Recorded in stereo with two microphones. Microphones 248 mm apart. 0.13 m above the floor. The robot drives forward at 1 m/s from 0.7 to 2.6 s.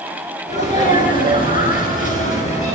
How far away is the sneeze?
About 1.5 m.